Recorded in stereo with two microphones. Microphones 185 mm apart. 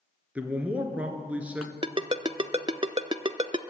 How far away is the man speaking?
About 1.9 m.